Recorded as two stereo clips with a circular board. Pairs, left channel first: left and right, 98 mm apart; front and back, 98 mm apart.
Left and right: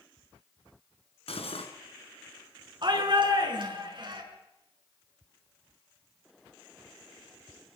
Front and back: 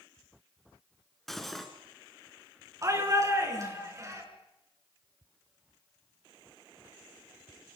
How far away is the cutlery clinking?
About 2.5 m.